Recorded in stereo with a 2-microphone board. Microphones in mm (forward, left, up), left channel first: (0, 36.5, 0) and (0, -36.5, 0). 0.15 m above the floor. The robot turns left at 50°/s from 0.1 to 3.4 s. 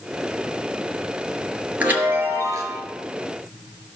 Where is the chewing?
I don't hear chewing.